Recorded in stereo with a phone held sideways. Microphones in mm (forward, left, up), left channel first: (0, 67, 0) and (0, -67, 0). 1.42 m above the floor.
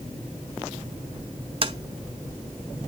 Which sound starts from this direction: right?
Tapping, at 1.6 s.